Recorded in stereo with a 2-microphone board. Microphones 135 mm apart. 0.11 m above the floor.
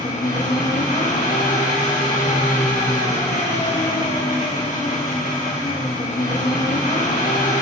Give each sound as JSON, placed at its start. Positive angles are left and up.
{"t": 0.0, "sound": "an engine running", "side_deg": 85, "distance_m": 1.9}